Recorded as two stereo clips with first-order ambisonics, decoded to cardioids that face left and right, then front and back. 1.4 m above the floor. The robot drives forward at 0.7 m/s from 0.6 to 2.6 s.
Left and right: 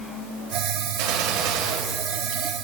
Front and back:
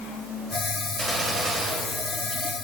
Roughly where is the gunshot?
Right.